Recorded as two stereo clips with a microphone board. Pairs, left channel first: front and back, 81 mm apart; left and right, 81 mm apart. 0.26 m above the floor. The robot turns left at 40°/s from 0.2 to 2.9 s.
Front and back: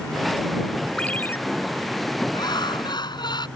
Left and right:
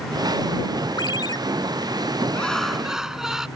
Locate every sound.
1.0 s a ringtone: 75° left; by 1.4 s 60° left
2.3 s laughter: 15° left; by 3.5 s 5° right